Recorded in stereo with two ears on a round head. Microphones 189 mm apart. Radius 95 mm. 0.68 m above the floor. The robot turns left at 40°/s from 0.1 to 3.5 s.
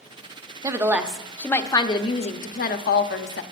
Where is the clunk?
No clunk in this recording.